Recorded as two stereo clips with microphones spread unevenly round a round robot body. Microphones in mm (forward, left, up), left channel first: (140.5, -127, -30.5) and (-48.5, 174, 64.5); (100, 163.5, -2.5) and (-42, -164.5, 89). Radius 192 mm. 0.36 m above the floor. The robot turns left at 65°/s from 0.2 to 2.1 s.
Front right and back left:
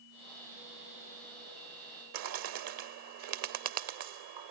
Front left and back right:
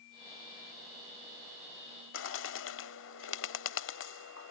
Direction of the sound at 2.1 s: 95° left.